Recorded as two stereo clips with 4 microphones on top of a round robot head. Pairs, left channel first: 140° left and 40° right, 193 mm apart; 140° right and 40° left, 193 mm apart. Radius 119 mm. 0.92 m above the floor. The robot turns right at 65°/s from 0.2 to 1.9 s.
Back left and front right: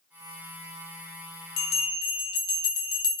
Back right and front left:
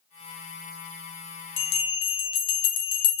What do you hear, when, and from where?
1.6 s a bell: 175° right, 0.6 m; by 3.2 s 155° right, 0.6 m